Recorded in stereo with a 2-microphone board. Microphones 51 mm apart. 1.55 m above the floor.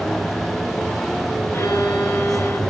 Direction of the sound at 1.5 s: 75° left (ahead or behind).